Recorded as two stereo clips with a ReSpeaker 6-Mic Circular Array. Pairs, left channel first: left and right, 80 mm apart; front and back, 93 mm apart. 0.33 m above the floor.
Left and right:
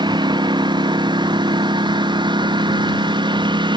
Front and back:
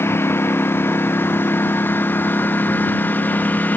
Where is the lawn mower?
65° right; by 3.8 s 75° right.